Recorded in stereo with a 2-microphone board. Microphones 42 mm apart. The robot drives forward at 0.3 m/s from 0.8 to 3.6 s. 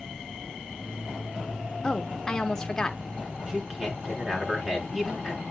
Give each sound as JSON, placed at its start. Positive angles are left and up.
{"t": 1.8, "sound": "a woman speaking", "side_deg": 20, "distance_m": 0.8}
{"t": 3.5, "sound": "a man speaking", "side_deg": -5, "distance_m": 5.0}